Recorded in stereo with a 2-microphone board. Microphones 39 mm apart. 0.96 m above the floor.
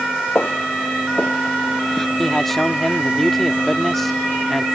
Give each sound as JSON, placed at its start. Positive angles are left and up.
{"t": 0.3, "sound": "footsteps", "side_deg": 45}
{"t": 2.2, "sound": "a man speaking", "side_deg": 5}